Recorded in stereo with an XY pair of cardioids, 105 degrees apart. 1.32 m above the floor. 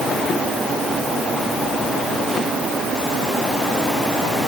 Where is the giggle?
No giggle in this recording.